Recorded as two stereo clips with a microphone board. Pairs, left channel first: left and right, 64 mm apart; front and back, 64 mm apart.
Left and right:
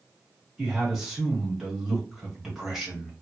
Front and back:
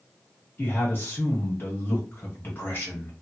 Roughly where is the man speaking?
Ahead.